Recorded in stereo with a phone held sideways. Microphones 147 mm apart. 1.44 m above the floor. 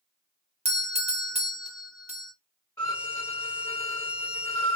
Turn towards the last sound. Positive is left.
turn(degrees=20)  # may be behind; listen again after turning